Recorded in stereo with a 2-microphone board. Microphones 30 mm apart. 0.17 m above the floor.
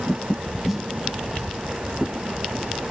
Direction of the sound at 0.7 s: 5° right (ahead or behind).